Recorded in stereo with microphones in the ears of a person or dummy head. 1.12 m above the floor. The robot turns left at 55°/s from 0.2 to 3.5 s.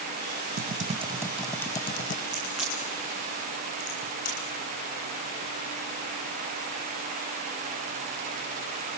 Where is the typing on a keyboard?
135° right, 0.8 m; by 2.2 s 135° left, 0.8 m.